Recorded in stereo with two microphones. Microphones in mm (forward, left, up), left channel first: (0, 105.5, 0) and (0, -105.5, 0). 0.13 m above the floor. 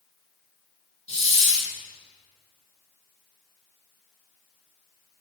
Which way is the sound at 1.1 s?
30° left (ahead or behind).